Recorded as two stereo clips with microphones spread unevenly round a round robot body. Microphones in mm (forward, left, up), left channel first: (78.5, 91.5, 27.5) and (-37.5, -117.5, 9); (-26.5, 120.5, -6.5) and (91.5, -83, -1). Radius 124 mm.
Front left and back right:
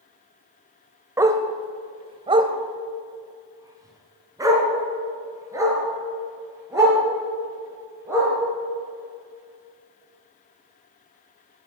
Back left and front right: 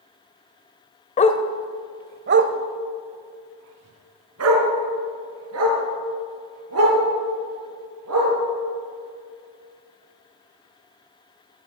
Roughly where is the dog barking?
Behind.